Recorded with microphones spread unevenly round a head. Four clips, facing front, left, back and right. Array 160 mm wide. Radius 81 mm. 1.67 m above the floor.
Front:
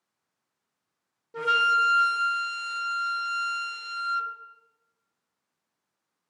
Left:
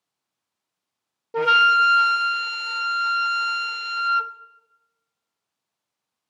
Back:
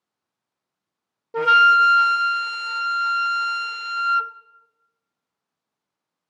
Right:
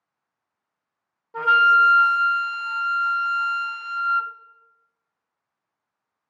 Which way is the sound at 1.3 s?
125° left.